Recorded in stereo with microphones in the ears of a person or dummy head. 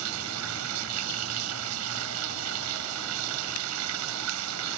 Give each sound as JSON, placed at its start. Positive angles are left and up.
{"t": 0.0, "sound": "running water", "side_deg": -85}